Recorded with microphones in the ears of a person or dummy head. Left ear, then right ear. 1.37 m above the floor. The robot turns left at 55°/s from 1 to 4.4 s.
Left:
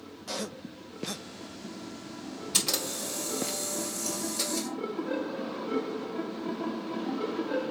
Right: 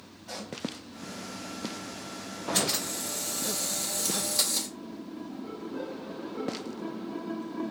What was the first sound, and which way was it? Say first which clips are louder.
A pop: left 4 dB; 60° left (ahead or behind).